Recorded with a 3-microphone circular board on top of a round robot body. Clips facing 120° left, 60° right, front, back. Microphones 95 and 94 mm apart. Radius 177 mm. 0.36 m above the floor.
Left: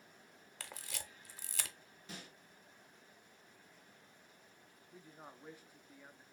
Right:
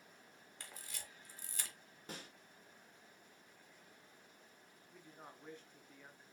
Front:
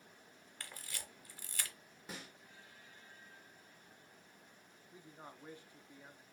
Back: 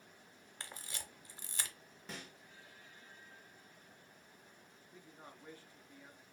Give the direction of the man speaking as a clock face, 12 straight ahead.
10 o'clock.